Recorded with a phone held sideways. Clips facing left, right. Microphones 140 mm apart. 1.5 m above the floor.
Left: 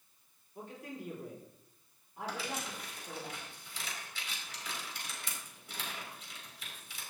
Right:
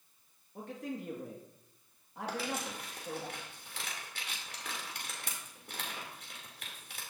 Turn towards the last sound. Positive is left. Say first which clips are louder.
# right 3 dB
turn(degrees=-60)  # may be behind; listen again after turning